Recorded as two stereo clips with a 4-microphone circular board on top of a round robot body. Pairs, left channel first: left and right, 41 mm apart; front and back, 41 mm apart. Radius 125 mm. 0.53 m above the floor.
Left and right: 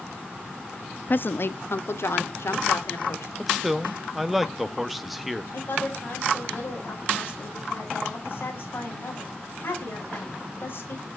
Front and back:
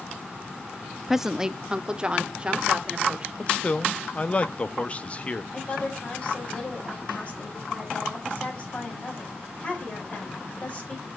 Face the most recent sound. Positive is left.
turn(degrees=55)